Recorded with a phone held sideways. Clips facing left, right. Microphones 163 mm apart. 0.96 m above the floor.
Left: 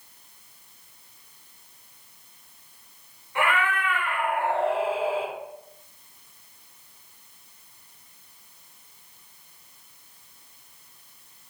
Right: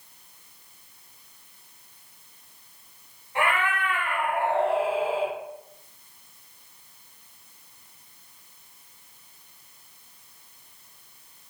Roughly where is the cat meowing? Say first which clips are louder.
Left 1 dB; right.